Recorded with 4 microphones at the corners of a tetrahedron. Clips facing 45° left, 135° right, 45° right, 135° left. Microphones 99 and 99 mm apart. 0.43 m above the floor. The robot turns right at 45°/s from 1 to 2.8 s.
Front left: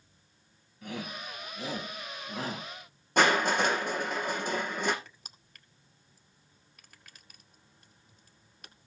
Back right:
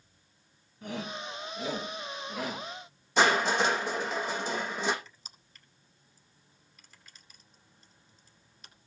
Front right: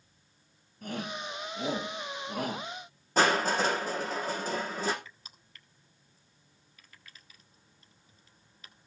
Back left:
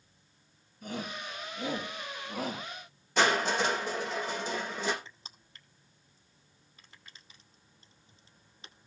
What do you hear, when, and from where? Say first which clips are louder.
0.8 s a shout: back right 2 dB, front right 2 dB; 75° right, 8.5 m; by 2.7 s 5° right, 8.5 m
3.2 s crushing: even, front right 1 dB; 5° left, 6 m
5.0 s crushing: even, back left 1 dB; 75° left, 1.9 m